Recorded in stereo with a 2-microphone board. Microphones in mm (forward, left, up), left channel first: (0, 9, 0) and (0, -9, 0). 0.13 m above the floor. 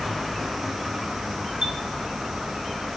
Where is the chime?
35° right (ahead or behind), 2.5 m.